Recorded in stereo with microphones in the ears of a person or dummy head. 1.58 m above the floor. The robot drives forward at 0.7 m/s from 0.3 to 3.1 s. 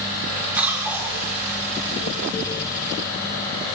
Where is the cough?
5° right (ahead or behind), 6 m; by 1.2 s 10° right (ahead or behind), 6 m.